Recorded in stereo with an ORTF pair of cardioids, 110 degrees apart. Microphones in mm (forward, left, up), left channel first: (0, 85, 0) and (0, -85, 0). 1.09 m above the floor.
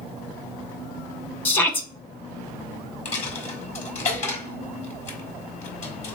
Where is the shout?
10° left, 1.0 m.